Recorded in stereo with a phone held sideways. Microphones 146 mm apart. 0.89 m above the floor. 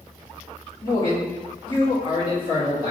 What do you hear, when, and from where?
0.8 s a man speaking: 35° left (ahead or behind), 1.6 m